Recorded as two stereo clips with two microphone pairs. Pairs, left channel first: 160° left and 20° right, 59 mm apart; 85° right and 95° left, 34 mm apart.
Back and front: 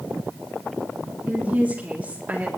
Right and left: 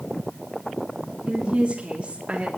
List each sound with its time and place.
1.3 s a woman speaking: 45° left, 3 m